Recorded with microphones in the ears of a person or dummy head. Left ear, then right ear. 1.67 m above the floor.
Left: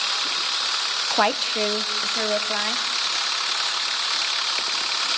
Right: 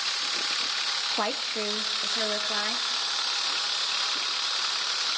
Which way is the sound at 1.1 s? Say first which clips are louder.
Left 7 dB; 25° left (ahead or behind).